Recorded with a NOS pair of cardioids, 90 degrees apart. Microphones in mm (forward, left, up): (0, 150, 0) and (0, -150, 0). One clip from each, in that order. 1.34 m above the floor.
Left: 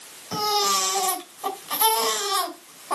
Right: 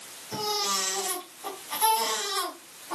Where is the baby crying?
70° left, 4 m.